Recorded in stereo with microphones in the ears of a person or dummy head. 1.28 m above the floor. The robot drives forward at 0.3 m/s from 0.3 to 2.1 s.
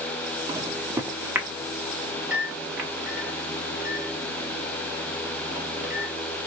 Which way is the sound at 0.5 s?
15° right (ahead or behind).